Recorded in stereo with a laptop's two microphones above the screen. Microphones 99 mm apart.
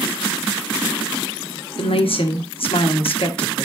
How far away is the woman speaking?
About 1.2 m.